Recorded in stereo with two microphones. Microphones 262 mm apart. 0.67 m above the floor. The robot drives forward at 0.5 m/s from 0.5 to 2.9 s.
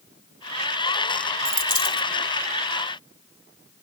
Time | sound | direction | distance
1.4 | a dropped coin | 55° left (ahead or behind) | 1.5 m